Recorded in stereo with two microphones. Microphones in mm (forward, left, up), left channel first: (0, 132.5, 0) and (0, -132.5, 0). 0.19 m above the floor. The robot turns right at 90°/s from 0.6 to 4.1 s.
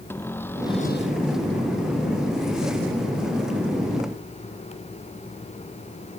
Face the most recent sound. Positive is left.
turn(degrees=-35)